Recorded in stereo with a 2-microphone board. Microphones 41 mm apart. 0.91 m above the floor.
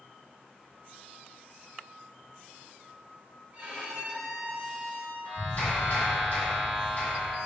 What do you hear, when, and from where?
3.5 s a violin: 45° right (ahead or behind), 1.0 m
5.2 s a clap: 60° left (ahead or behind), 1.4 m